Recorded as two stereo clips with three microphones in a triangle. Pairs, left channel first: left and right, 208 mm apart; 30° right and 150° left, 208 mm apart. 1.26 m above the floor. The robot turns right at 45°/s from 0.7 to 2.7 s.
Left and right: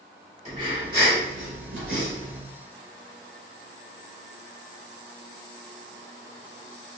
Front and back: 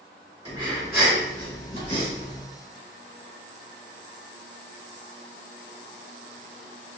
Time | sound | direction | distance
0.5 | breathing | 140° right | 1.9 m